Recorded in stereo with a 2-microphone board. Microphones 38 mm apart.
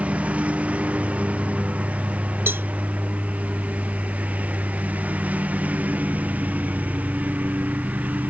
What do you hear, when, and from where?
0.0 s a lawn mower: 40° right (ahead or behind); by 8.3 s 45° right (ahead or behind)
2.5 s a cowbell: 75° right (ahead or behind)